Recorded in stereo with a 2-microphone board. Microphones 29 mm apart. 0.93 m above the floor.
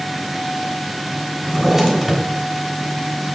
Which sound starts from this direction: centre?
A drawer, at 1.4 s.